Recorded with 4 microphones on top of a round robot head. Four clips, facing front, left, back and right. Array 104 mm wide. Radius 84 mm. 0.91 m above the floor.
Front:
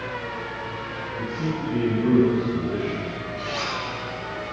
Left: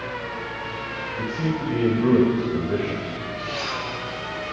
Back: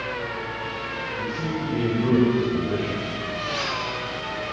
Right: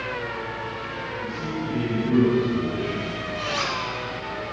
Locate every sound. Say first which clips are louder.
1.2 s a man speaking: left 6 dB, front 1 dB; 95° left, 6 m; by 3.0 s 120° left, 4 m
3.4 s a zipper: right 3 dB, even; 90° right, 10 m